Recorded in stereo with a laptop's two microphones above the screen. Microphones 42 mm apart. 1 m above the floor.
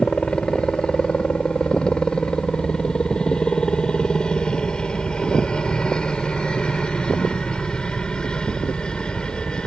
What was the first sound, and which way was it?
A helicopter, 20° left (ahead or behind).